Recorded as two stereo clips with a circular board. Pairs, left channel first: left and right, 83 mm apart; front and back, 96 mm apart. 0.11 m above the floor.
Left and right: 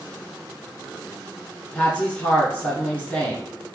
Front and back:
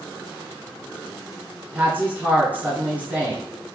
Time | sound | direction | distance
1.7 | a woman speaking | 135° left | 1.3 m